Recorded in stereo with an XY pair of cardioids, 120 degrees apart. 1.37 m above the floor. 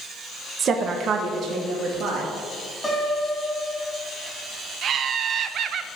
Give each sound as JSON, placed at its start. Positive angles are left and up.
{"t": 0.6, "sound": "a woman speaking", "azimuth_deg": -45, "distance_m": 1.0}
{"t": 2.8, "sound": "a piano", "azimuth_deg": 10, "distance_m": 2.5}
{"t": 4.8, "sound": "laughter", "azimuth_deg": -55, "distance_m": 0.7}